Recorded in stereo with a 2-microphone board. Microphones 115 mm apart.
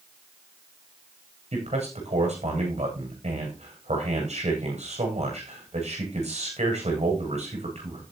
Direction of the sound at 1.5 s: 75° right (ahead or behind).